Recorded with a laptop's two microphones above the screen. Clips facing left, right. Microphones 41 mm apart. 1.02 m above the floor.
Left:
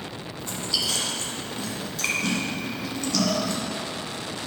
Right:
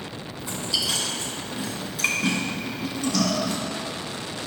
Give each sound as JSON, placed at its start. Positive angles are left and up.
{"t": 0.4, "sound": "chewing", "side_deg": -15, "distance_m": 1.5}